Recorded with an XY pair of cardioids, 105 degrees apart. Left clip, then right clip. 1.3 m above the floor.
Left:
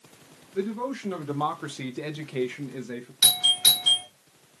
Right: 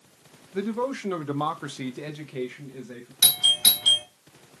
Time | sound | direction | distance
0.5 | a man speaking | 45° right | 1.0 m
3.2 | a doorbell | 30° right | 1.4 m